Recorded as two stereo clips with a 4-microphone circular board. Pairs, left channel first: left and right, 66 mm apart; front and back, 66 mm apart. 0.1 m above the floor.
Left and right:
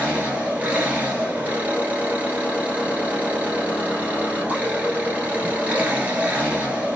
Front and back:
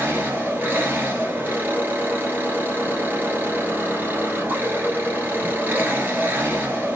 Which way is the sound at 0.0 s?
145° right.